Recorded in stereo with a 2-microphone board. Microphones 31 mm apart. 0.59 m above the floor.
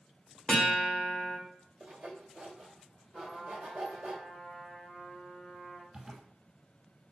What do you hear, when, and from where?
0.5 s a guitar: 30° left (ahead or behind), 1.7 m
1.8 s sawing: 50° right (ahead or behind), 1.7 m
3.1 s a trumpet: 15° left (ahead or behind), 1.5 m
5.9 s a zipper: 20° right (ahead or behind), 1.0 m